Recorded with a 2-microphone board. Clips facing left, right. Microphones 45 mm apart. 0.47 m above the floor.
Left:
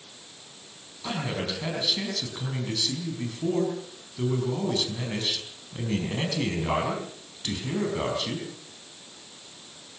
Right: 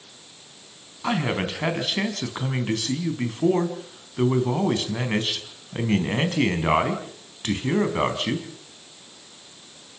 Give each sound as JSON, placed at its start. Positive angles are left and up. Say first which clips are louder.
{"t": 1.0, "sound": "a man speaking", "louder": "right 6 dB", "side_deg": -40, "distance_m": 4.0}